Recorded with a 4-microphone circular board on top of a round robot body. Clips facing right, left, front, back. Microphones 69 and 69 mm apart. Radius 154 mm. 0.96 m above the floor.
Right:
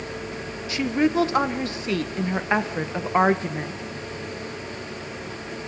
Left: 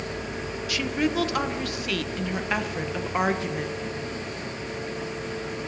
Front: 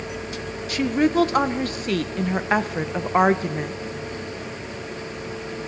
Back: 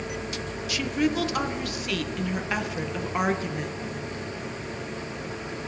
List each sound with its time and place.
0.7 s a woman speaking: 35° right, 1.1 m